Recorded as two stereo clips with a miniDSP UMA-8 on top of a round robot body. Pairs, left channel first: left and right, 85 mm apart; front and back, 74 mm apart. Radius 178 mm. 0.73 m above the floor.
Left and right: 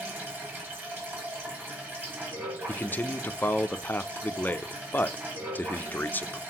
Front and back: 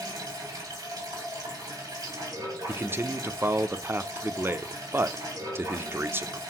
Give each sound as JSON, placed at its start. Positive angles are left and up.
{"t": 0.0, "sound": "running water", "azimuth_deg": -155, "distance_m": 3.5}
{"t": 2.7, "sound": "a man speaking", "azimuth_deg": 145, "distance_m": 0.6}